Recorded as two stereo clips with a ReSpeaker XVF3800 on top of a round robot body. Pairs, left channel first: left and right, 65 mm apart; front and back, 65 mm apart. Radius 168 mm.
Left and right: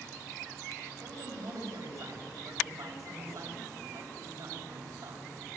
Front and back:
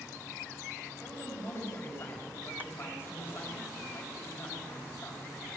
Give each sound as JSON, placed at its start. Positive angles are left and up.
{"t": 1.0, "sound": "a man speaking", "azimuth_deg": -55, "distance_m": 5.0}